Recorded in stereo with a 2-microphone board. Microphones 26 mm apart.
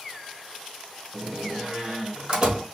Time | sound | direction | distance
1.1 | a door slam | 50° right (ahead or behind) | 1.7 m